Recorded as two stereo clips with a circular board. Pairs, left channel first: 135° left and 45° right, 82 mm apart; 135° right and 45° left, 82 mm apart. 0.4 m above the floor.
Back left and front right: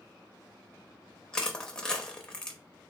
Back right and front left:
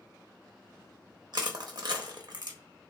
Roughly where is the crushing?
Ahead left.